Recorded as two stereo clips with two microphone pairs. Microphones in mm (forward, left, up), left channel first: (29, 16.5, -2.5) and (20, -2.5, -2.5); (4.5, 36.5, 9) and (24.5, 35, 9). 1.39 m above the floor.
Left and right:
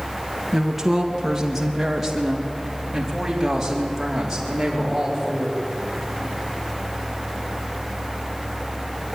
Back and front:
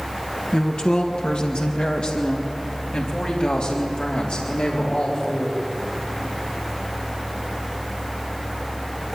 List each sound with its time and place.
0.5 s a woman speaking: 165° left, 1.6 m